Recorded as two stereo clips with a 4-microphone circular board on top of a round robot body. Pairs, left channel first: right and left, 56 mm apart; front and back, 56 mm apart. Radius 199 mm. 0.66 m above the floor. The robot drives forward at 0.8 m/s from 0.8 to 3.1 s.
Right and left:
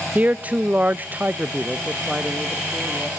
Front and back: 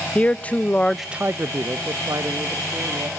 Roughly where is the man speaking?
Ahead left.